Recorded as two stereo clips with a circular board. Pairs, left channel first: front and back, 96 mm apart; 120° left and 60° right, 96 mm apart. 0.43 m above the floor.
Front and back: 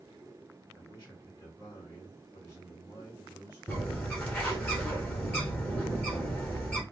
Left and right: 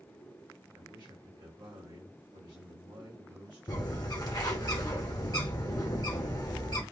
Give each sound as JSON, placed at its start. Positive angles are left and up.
{"t": 0.7, "sound": "a man speaking", "azimuth_deg": -45, "distance_m": 2.0}
{"t": 3.7, "sound": "a bird", "azimuth_deg": 70, "distance_m": 1.3}